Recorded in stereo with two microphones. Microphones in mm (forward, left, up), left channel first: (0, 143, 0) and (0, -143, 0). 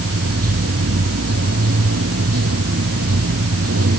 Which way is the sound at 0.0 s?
55° right (ahead or behind).